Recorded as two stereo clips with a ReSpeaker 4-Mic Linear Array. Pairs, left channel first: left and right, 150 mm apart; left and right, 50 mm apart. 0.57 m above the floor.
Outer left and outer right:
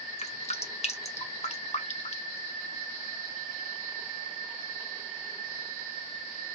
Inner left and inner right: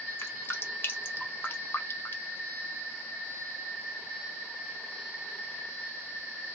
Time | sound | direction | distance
0.2 | dripping | 45° left (ahead or behind) | 0.6 m